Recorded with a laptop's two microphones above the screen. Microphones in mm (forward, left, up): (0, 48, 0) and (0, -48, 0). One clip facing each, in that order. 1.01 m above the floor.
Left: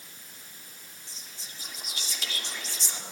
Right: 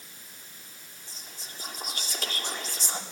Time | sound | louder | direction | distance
1.1 | whispering | right 4 dB | 50° right (ahead or behind) | 2 m